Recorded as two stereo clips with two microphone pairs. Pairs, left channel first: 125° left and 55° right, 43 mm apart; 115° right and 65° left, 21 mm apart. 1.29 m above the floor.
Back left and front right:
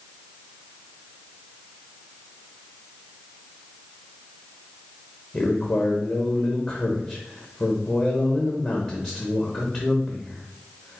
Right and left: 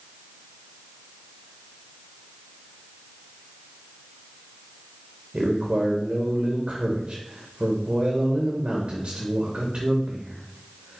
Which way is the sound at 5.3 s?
70° left.